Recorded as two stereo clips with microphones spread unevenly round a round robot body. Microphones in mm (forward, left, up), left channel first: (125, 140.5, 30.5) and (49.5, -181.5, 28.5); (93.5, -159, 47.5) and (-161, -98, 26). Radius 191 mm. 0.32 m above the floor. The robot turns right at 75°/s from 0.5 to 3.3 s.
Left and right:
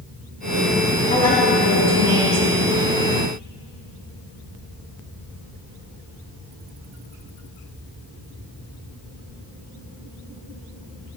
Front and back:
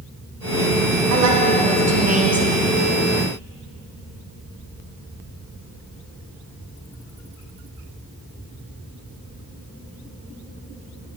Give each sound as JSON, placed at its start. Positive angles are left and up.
{"t": 1.1, "sound": "a woman speaking", "azimuth_deg": 145, "distance_m": 3.0}